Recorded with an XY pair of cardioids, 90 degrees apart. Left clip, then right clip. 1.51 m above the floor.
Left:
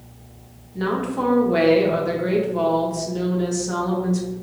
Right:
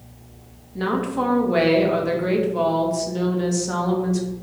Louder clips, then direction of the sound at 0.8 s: Right 1 dB; 20° right.